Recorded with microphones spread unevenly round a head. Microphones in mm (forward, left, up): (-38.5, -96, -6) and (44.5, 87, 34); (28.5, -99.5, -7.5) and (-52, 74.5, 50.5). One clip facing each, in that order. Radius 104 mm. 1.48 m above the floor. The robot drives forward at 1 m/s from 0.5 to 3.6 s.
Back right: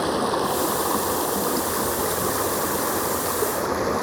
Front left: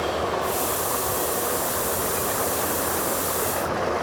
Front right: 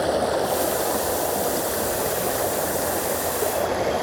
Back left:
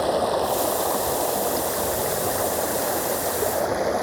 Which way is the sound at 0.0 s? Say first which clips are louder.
Back right 2 dB, even; 150° right.